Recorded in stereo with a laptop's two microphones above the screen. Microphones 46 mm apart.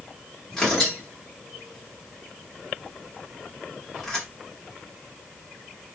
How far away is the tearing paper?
About 1.3 m.